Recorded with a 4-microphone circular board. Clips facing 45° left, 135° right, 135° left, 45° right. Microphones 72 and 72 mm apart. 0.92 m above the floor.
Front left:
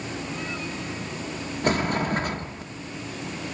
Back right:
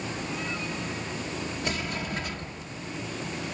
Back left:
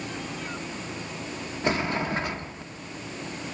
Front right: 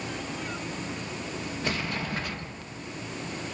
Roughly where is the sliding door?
Left.